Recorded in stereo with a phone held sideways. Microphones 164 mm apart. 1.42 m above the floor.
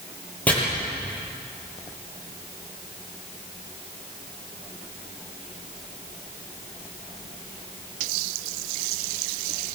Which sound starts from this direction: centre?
Chopping, at 0.5 s.